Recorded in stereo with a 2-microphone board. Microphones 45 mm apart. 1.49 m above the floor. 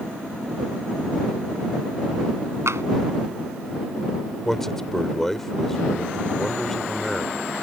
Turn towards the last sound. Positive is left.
turn(degrees=5)  # may be behind; listen again after turning